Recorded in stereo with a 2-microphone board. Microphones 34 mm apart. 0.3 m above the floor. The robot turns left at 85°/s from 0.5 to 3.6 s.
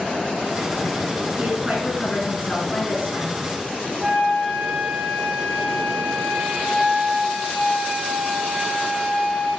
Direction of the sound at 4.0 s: 30° right (ahead or behind).